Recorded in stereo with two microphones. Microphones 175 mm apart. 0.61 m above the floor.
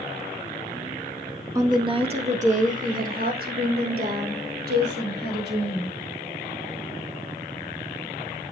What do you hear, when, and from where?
1.6 s a woman speaking: 20° right (ahead or behind), 1.2 m; by 6.0 s 70° right (ahead or behind), 4 m